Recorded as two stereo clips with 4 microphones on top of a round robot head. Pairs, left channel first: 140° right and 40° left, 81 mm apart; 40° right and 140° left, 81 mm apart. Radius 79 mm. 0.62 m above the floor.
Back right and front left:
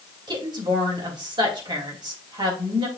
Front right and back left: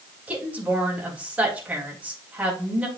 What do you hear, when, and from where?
0.3 s a woman speaking: 70° left, 3.5 m